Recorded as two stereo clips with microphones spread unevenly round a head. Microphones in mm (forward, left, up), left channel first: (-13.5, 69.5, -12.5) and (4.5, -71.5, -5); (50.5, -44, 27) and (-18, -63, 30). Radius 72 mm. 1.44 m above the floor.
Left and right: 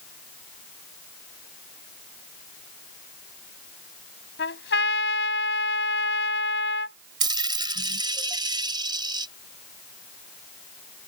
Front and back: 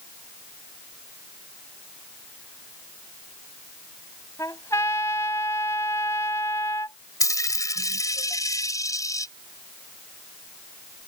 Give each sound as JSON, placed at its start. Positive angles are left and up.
{"t": 4.4, "sound": "a trumpet", "azimuth_deg": 85}
{"t": 7.2, "sound": "a dropped coin", "azimuth_deg": -25}